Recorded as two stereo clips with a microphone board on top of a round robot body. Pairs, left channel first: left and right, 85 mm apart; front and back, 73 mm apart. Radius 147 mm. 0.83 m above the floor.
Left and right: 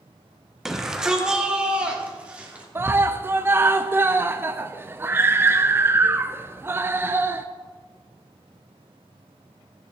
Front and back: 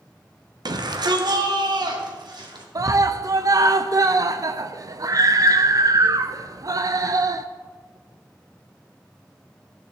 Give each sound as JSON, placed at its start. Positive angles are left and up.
{"t": 0.7, "sound": "a shout", "azimuth_deg": -175, "distance_m": 1.7}
{"t": 2.8, "sound": "a scream", "azimuth_deg": -150, "distance_m": 0.7}